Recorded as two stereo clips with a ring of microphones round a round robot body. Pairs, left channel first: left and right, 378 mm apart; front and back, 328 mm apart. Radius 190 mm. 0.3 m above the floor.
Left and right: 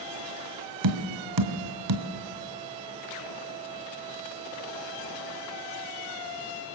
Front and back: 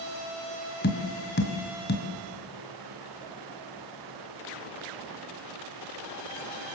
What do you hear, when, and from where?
0.8 s tapping: 60° right, 1.6 m